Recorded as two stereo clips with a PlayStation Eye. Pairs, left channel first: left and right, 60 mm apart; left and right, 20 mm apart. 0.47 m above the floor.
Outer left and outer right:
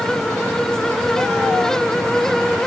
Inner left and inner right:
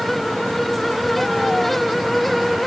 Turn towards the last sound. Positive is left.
No sound to turn to.